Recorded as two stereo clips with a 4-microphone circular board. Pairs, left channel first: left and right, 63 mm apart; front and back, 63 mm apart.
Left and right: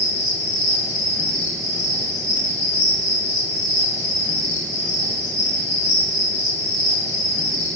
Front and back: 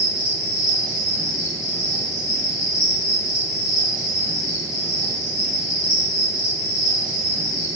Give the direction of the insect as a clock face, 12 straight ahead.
8 o'clock.